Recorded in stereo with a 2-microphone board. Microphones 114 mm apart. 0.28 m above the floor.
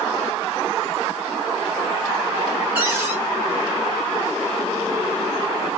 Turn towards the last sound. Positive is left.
turn(degrees=-15)  # may be behind; listen again after turning